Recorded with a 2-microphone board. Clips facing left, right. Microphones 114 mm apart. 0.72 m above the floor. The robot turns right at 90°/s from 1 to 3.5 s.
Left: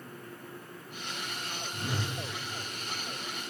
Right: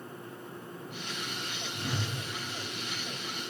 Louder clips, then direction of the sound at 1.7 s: Even; 155° left.